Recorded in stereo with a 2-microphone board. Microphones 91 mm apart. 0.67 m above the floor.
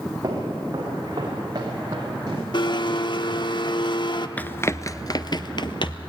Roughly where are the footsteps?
Right.